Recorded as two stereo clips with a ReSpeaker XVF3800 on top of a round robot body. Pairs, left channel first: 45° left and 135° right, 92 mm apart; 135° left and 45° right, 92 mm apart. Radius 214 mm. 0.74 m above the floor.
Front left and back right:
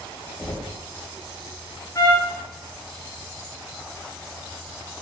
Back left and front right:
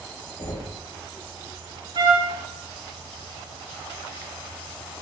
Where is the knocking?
120° left, 3.5 m.